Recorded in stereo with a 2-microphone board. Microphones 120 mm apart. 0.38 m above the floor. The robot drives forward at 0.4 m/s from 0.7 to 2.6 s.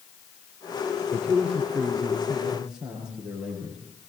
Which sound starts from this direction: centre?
A man speaking, at 1.1 s.